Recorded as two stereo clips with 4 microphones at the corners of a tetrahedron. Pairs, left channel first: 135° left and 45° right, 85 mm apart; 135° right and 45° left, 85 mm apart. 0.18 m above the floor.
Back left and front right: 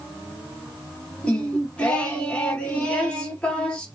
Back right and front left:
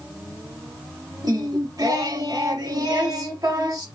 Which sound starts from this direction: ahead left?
Singing, at 1.2 s.